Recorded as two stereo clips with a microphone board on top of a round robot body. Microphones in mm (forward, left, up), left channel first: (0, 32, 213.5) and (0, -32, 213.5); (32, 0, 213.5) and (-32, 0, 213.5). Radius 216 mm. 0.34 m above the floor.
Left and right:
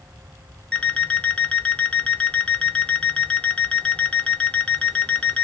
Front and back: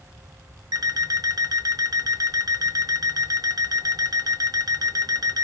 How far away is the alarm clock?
About 1.0 m.